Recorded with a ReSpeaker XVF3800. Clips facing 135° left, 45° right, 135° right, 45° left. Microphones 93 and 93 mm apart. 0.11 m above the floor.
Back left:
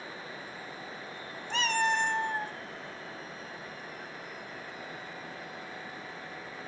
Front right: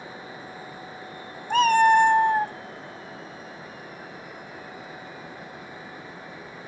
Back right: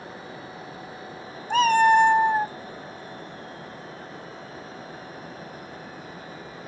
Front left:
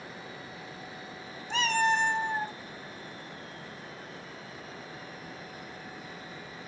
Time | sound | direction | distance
1.5 | a cat meowing | 90° right | 0.8 m